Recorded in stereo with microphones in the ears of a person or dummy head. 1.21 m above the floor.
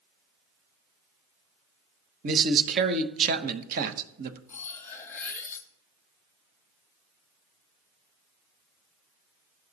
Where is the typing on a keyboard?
No typing on a keyboard in this recording.